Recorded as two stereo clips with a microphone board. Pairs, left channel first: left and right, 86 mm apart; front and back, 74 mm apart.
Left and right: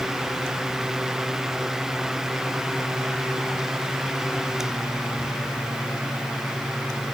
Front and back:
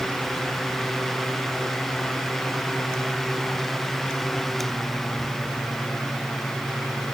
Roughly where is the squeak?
I don't hear a squeak.